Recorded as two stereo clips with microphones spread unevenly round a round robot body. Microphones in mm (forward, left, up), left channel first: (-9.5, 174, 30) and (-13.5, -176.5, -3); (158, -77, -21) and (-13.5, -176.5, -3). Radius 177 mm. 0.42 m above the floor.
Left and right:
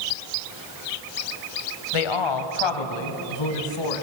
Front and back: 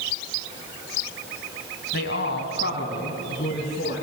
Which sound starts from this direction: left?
A man speaking, at 1.9 s.